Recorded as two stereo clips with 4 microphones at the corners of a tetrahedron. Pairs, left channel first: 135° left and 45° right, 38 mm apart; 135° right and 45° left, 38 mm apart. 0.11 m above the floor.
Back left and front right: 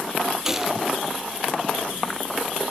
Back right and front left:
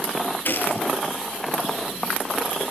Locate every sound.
0.5 s a gunshot: 120° right, 1.7 m